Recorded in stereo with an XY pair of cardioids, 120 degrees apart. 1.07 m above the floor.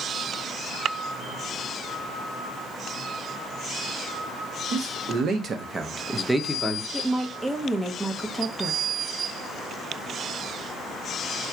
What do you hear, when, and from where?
4.7 s a man speaking: 65° right, 1.0 m; by 6.8 s 20° left, 0.8 m
6.9 s a woman speaking: 15° right, 0.6 m